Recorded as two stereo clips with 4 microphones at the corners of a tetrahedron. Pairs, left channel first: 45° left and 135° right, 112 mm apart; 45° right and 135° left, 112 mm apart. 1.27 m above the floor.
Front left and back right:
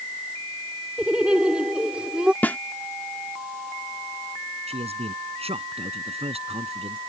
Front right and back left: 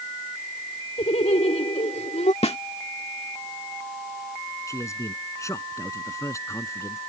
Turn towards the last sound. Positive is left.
turn(degrees=-110)